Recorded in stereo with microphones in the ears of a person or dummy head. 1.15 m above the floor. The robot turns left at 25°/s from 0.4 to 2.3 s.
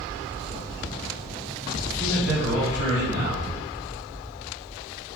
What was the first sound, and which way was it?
A man speaking, 50° right (ahead or behind).